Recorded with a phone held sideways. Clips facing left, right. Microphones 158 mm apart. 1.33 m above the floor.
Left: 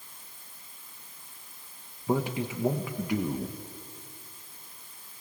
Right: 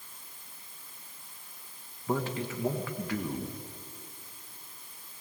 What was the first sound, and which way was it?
A man speaking, 15° left (ahead or behind).